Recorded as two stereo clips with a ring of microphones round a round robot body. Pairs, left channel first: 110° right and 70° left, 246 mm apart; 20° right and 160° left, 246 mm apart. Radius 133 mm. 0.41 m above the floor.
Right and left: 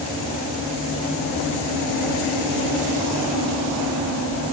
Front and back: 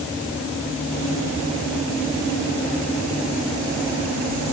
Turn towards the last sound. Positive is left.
No sound to turn to.